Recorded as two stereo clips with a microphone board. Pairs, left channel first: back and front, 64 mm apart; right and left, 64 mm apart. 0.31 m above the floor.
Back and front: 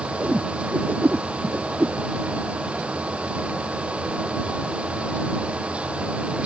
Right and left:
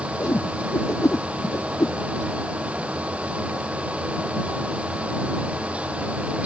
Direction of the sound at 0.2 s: 60° right.